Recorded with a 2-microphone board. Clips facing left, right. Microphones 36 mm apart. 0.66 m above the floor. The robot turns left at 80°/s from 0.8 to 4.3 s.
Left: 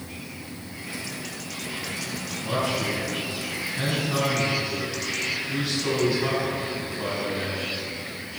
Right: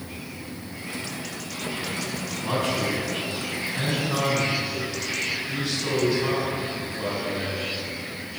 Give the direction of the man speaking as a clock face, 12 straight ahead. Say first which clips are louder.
Right 1 dB; 1 o'clock.